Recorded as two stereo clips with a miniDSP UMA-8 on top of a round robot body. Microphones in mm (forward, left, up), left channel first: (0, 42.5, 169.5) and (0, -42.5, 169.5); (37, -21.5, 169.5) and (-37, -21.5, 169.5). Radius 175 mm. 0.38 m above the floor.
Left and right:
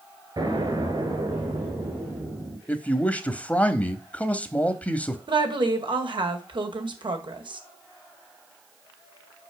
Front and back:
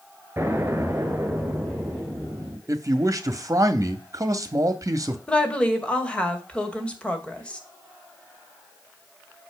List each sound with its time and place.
0.4 s an explosion: 120° right, 3 m
2.7 s a man speaking: 160° left, 1.2 m
5.3 s a woman speaking: 75° right, 2 m